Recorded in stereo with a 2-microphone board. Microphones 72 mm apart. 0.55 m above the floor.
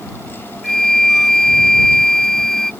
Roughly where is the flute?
Centre.